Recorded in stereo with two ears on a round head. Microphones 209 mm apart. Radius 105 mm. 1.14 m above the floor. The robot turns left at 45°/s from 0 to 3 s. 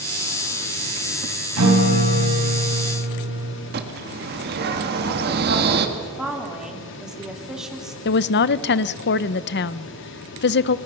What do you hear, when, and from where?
1.6 s a guitar: 90° right, 4.5 m; by 3.5 s 155° right, 4.5 m
3.7 s a bird: 45° right (ahead or behind), 1.5 m
6.0 s a woman speaking: centre (ahead or behind), 2.5 m
8.1 s a woman speaking: 50° left (ahead or behind), 0.5 m